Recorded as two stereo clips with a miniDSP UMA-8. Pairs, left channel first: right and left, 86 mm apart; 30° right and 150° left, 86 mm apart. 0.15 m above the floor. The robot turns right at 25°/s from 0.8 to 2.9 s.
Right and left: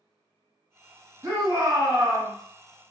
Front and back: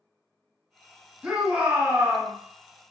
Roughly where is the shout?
Left.